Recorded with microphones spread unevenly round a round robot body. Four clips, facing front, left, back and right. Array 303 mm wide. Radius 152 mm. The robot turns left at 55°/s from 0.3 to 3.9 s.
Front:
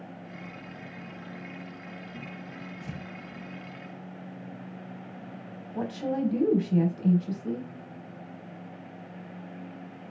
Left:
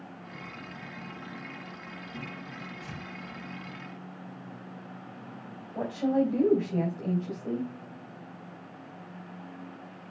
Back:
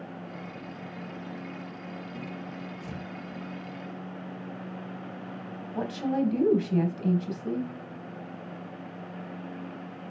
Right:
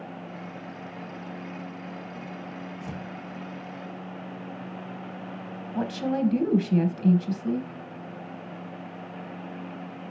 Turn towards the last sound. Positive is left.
turn(degrees=-100)